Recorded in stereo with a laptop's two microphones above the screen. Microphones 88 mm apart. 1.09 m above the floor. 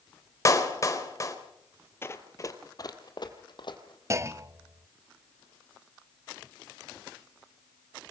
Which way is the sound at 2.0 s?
25° left (ahead or behind).